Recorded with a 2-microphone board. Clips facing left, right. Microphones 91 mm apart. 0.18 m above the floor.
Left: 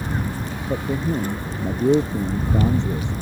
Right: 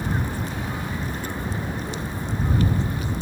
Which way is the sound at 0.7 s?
70° left (ahead or behind).